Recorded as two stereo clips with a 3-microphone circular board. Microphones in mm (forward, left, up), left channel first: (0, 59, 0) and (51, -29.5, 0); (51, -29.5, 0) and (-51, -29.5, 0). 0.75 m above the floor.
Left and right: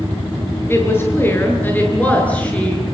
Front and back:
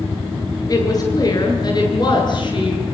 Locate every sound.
0.7 s a woman speaking: 55° left, 10 m; by 2.8 s 40° left, 9 m